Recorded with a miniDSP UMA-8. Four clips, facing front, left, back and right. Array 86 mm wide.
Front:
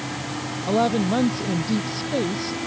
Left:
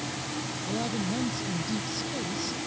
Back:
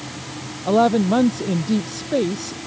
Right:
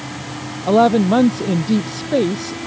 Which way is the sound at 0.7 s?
105° right.